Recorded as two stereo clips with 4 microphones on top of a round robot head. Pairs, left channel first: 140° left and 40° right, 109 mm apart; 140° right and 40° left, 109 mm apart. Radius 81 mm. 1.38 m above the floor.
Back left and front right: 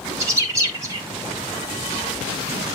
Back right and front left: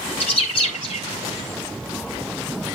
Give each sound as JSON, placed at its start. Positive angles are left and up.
{"t": 0.2, "sound": "a bird", "azimuth_deg": -105, "distance_m": 3.0}